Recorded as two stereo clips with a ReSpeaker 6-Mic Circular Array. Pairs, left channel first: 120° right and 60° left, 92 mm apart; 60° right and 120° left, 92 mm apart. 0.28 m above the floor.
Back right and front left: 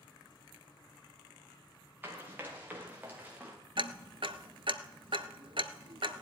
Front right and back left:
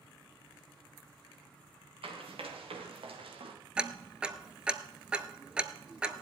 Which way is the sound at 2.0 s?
130° left.